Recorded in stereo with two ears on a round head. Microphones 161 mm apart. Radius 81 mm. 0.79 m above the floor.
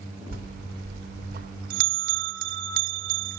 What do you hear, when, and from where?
0.3 s a bell: 50° right (ahead or behind), 0.6 m